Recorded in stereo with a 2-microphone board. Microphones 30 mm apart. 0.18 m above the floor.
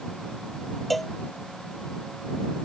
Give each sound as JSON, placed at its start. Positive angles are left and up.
{"t": 0.9, "sound": "a cowbell", "side_deg": 5}